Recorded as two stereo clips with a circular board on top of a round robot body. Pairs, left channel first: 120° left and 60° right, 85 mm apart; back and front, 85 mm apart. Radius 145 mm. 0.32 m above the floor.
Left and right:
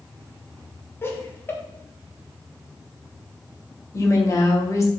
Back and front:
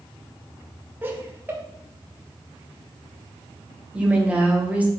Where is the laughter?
60° left, 2.5 m.